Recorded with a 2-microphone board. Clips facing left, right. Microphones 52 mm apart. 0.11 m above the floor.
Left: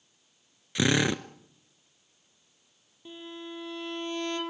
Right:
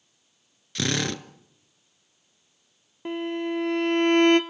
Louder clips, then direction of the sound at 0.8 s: Left 2 dB; 20° left (ahead or behind).